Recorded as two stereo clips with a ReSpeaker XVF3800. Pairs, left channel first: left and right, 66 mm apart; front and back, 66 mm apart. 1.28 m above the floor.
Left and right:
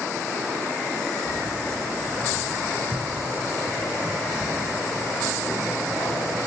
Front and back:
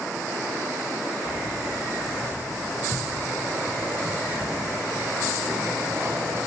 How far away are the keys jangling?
About 5 m.